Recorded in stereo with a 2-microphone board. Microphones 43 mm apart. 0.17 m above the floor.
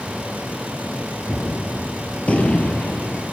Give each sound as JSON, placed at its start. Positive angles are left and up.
{"t": 1.3, "sound": "a gunshot", "side_deg": 30, "distance_m": 2.5}